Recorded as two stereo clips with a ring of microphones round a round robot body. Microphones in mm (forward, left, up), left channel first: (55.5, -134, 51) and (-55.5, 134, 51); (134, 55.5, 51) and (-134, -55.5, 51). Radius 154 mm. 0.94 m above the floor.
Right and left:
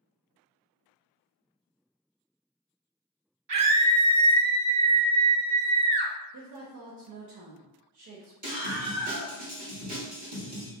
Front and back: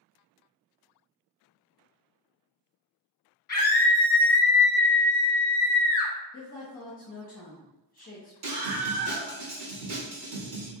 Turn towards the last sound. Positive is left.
turn(degrees=175)